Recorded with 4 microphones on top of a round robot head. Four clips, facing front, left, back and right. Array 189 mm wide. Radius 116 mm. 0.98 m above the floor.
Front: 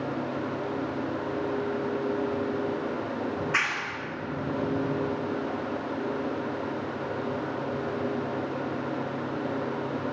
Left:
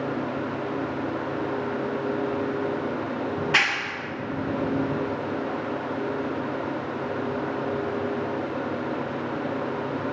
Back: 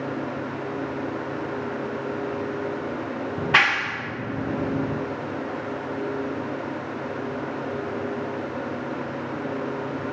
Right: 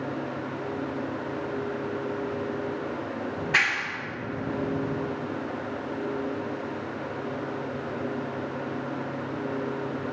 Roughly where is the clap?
Behind.